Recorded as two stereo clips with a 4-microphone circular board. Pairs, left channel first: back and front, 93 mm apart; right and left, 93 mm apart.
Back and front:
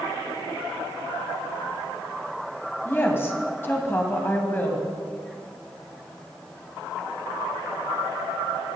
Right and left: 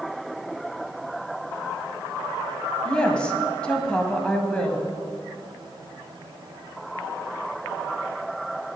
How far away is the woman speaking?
About 1.6 m.